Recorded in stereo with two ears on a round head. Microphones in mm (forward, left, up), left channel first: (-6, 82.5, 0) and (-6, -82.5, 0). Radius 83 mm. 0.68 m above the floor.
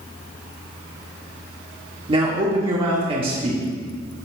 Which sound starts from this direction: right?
A man speaking, at 2.1 s.